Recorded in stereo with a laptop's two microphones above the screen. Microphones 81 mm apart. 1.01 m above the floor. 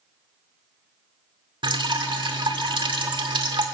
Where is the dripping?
85° right, 1.9 m.